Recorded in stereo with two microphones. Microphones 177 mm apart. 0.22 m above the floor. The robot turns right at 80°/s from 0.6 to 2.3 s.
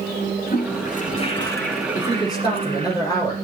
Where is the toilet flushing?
85° left, 3 m; by 3.0 s 140° right, 3 m.